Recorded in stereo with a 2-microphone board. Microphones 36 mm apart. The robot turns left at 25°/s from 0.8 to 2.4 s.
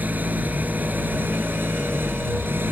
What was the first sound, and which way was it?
An engine running, 60° right.